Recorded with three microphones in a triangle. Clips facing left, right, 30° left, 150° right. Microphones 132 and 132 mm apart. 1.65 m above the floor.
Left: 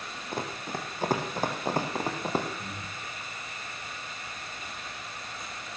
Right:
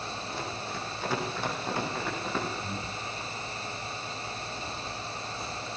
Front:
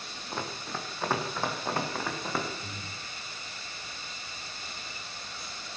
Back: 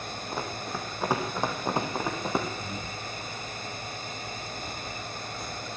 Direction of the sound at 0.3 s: 130° left.